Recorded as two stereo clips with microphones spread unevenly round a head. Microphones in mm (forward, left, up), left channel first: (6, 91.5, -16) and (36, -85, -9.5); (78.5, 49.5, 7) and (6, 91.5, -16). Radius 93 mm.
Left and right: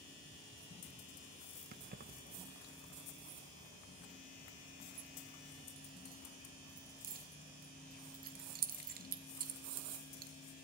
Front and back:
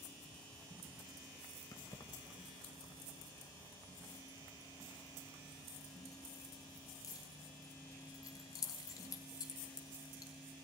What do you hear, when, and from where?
1.7 s keys jangling: 55° right, 0.8 m